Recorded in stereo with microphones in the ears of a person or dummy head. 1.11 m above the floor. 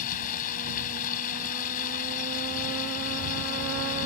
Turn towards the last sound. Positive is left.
turn(degrees=40)  # may be behind; listen again after turning